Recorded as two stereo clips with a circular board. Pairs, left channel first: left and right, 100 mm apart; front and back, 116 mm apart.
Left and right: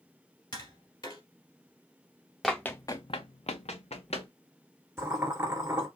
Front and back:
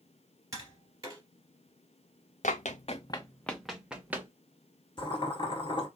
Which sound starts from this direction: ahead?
Running footsteps, at 2.4 s.